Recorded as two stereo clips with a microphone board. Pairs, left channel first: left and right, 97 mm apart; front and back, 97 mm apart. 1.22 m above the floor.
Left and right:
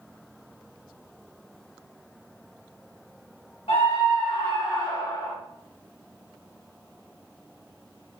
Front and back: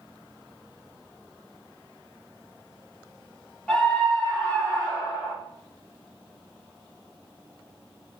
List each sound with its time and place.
3.7 s a scream: 75° left, 1.8 m; by 5.3 s 30° left, 1.7 m